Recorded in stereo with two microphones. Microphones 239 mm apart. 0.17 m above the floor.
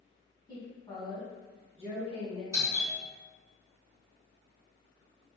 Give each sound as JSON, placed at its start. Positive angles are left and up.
{"t": 0.5, "sound": "a woman speaking", "side_deg": 20, "distance_m": 1.2}
{"t": 2.5, "sound": "a doorbell", "side_deg": 15, "distance_m": 1.9}